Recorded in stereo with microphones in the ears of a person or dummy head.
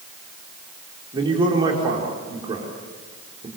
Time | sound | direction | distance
1.1 | a man speaking | 20° right (ahead or behind) | 4 m